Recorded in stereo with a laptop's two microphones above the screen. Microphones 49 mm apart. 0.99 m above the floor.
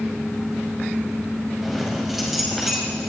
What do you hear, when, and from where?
1.6 s keys jangling: 5° right (ahead or behind), 5 m